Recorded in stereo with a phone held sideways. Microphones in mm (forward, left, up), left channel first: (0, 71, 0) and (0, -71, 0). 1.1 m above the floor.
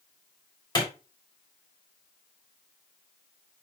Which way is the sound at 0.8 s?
30° left (ahead or behind).